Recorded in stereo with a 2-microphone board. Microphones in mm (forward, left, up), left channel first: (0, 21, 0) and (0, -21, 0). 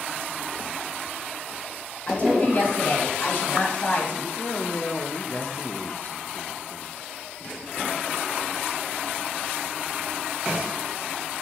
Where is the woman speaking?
50° left (ahead or behind), 2.5 m.